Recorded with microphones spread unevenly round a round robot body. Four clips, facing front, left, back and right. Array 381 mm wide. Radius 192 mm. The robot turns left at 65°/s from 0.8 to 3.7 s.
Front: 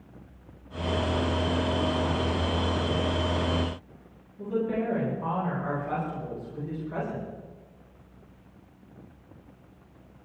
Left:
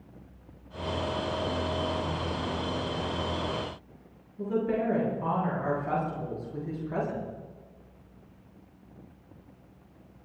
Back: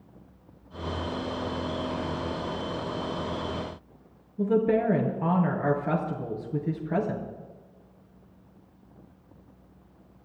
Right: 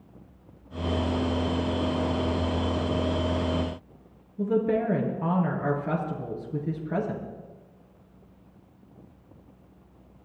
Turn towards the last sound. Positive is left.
turn(degrees=-145)